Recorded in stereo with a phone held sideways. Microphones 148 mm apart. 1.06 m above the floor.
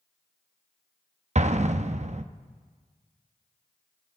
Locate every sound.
1.4 s an explosion: 50° right (ahead or behind), 0.5 m